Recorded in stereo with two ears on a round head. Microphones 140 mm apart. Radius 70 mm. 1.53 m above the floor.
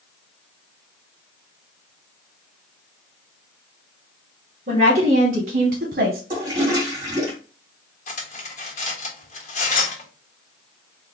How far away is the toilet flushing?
About 1.8 m.